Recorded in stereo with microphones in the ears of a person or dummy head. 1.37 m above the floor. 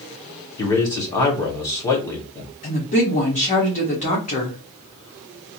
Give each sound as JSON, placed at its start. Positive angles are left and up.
{"t": 0.6, "sound": "a man speaking", "side_deg": 15, "distance_m": 1.2}
{"t": 2.6, "sound": "a woman speaking", "side_deg": 35, "distance_m": 1.2}